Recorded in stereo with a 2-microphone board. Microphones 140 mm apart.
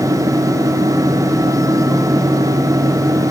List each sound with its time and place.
Only background noise.